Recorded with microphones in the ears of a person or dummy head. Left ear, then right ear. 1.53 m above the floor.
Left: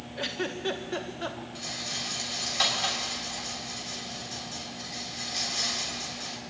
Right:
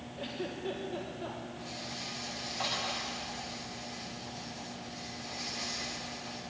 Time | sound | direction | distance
0.2 | a giggle | 50° left (ahead or behind) | 1.3 m
1.6 | a rattle | 75° left (ahead or behind) | 6 m